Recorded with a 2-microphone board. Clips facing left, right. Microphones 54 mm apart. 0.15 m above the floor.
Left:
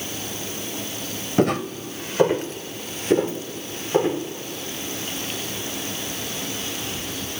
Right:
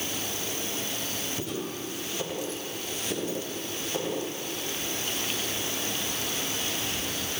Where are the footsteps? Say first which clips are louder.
Left 12 dB; 65° left (ahead or behind), 1.5 m; by 4.2 s 35° left (ahead or behind), 4 m.